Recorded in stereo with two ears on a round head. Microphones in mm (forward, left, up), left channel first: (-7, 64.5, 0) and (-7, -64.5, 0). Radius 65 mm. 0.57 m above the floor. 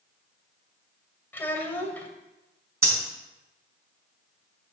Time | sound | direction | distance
1.3 | a child speaking | 15° left (ahead or behind) | 2.5 m
2.8 | breathing | 20° right (ahead or behind) | 4.5 m